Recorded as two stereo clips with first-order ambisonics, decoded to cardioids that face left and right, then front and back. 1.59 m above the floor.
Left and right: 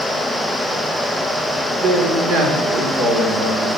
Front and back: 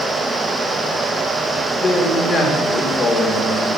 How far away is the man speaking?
About 2.5 m.